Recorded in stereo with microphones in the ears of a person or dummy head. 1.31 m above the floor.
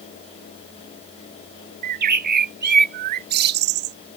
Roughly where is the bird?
Right.